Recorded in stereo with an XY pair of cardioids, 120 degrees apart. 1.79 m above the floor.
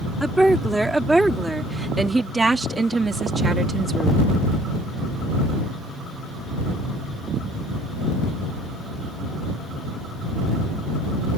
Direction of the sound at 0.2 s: 5° right.